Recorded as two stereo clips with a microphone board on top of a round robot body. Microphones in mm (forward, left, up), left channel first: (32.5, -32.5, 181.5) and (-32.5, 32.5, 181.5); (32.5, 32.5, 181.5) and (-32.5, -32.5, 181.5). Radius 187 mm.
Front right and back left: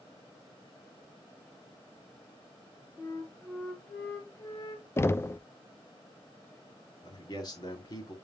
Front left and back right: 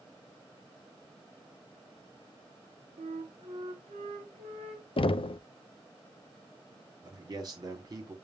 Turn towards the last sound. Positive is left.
turn(degrees=-85)